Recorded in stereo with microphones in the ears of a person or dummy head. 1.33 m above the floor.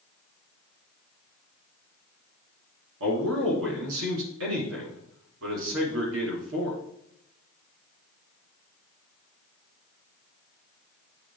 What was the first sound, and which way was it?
A man speaking, 80° right.